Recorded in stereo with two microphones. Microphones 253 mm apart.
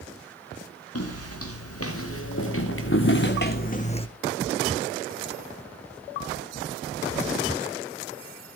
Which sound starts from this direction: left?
Footsteps, at 0.9 s.